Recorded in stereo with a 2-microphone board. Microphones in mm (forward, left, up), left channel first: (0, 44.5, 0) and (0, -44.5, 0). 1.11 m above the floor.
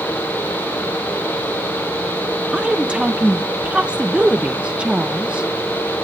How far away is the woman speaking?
About 0.5 m.